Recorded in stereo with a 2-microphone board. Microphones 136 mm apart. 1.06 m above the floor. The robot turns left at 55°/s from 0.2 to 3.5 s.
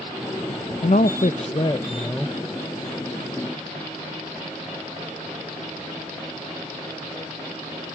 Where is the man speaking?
80° left, 0.7 m; by 2.4 s 5° right, 0.7 m.